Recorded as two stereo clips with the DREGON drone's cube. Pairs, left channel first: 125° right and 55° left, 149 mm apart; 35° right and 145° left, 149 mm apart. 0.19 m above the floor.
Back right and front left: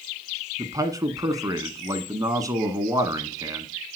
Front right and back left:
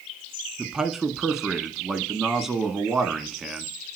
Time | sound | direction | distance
0.6 | a man speaking | 60° left | 1.0 m